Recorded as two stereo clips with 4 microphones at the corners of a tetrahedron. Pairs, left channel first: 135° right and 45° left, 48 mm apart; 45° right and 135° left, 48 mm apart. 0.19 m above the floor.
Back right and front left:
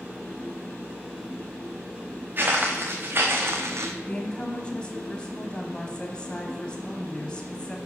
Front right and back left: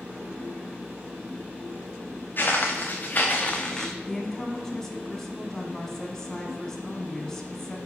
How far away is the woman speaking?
About 1.0 m.